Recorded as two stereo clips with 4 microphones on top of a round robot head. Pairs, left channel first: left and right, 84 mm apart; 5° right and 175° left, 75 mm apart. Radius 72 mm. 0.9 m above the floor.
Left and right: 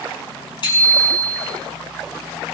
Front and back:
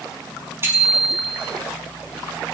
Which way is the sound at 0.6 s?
120° left.